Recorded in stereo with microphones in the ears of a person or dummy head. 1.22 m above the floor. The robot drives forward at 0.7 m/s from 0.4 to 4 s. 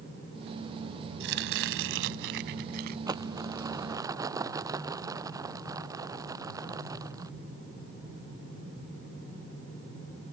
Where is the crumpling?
15° right (ahead or behind); by 7.3 s 10° right (ahead or behind).